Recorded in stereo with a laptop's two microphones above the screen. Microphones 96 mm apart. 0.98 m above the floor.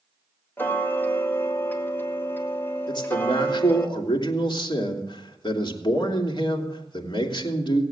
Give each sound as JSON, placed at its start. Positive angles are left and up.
{"t": 0.6, "sound": "ticking", "side_deg": 20, "distance_m": 1.9}
{"t": 2.9, "sound": "a man speaking", "side_deg": 50, "distance_m": 3.0}